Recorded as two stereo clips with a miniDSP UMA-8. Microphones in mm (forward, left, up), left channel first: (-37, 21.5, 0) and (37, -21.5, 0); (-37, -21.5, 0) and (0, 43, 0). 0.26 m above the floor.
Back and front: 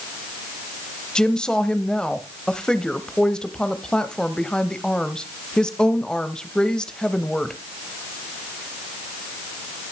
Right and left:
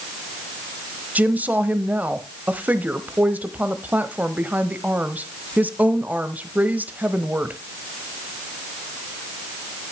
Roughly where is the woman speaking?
Left.